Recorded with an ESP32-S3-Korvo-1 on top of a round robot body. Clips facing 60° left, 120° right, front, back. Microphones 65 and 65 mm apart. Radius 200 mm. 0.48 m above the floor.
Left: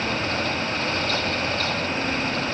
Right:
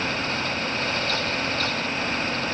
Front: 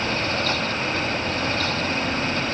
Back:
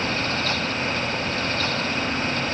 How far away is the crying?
I don't hear crying.